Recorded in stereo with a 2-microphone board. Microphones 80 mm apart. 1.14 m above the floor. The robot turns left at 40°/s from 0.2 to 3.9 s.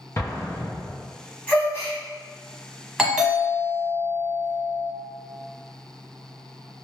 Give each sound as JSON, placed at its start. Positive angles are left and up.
{"t": 0.2, "sound": "an explosion", "side_deg": 35, "distance_m": 0.6}
{"t": 1.5, "sound": "a gasp", "side_deg": 20, "distance_m": 1.4}
{"t": 3.0, "sound": "a doorbell", "side_deg": -5, "distance_m": 1.0}